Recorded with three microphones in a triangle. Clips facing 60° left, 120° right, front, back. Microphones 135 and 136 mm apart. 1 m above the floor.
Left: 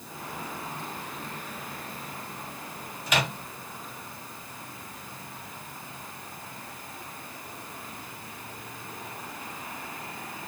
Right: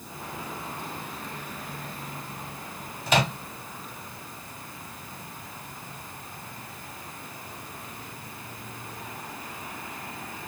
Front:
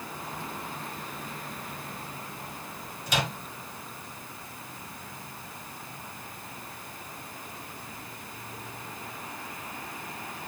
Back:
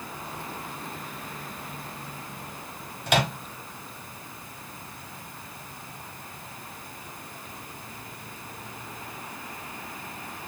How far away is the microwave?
About 0.6 m.